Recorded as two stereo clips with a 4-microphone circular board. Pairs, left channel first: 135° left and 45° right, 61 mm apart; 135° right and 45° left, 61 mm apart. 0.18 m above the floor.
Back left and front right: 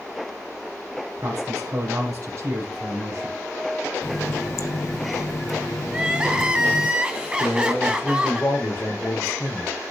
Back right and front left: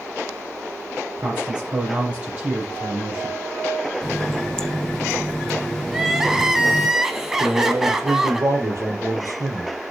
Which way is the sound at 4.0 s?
145° left.